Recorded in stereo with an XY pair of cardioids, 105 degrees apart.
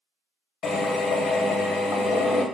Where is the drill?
60° left, 0.6 m.